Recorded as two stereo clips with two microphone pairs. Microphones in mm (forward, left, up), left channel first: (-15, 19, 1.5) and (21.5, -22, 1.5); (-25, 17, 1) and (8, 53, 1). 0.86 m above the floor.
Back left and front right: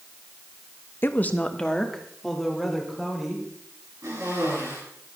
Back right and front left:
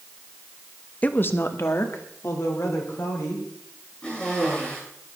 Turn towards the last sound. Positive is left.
turn(degrees=-75)